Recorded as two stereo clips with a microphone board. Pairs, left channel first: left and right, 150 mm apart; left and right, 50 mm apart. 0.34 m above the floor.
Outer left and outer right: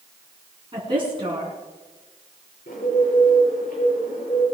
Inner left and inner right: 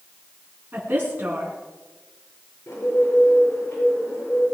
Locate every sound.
0.7 s a woman speaking: 35° right (ahead or behind), 4 m
2.7 s a bird: 65° left (ahead or behind), 8 m